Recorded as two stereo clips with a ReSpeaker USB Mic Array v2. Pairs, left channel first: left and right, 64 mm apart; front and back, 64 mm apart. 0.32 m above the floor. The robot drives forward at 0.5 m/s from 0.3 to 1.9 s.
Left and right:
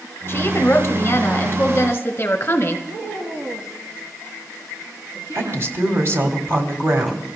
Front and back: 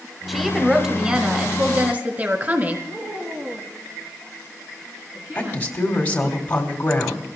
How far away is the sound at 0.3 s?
About 1.5 m.